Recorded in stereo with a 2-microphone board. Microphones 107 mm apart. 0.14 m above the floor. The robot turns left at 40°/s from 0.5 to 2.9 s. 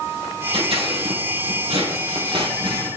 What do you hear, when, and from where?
0.5 s scissors: 50° right (ahead or behind), 3 m; by 2.9 s 30° right (ahead or behind), 3 m